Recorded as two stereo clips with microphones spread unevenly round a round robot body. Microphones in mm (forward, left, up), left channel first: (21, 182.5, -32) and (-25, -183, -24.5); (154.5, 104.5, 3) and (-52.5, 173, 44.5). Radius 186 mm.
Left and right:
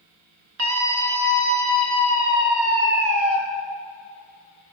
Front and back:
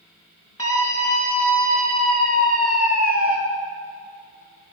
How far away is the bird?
No bird in this recording.